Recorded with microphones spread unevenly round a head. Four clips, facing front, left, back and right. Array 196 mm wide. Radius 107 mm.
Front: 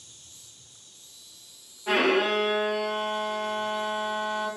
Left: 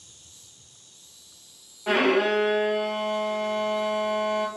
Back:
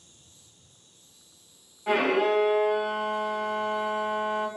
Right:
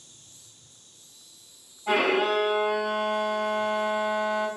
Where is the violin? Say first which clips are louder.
Left 2 dB, even; 80° left, 1.0 m.